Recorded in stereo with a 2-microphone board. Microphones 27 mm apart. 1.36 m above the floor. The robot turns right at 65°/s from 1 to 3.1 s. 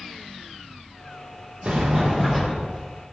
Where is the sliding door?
55° right, 1.5 m; by 2.8 s 20° left, 1.5 m.